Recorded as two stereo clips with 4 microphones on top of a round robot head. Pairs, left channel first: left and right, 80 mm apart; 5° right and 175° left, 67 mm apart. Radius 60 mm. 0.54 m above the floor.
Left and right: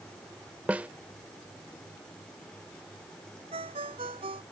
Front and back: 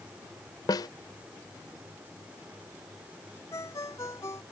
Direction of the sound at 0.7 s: 15° right.